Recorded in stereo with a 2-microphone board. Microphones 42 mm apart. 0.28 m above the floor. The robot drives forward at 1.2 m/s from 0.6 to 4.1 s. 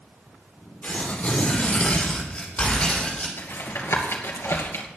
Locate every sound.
0.8 s tearing paper: 35° left (ahead or behind), 5 m; by 3.3 s 20° left (ahead or behind), 8 m
3.4 s tapping: 65° left (ahead or behind), 2.5 m; by 4.9 s 80° left, 2.5 m